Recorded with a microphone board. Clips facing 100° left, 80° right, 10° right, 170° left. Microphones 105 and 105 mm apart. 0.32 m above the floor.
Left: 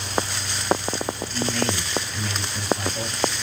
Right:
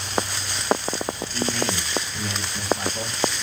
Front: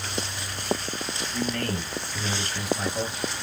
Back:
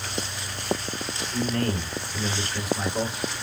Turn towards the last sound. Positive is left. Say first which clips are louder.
# left 1 dB, back 3 dB
turn(degrees=-150)